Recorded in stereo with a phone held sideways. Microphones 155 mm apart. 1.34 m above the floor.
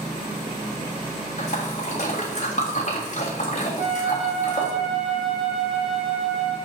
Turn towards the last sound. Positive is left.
turn(degrees=-30)  # may be behind; listen again after turning